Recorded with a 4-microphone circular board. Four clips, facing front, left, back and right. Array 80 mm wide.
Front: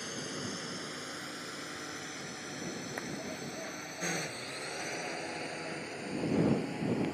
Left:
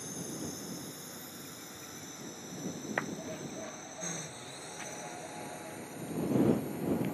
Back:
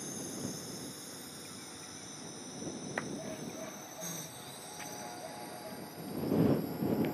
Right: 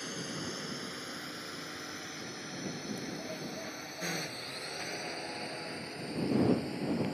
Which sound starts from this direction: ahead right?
A drone, at 0.0 s.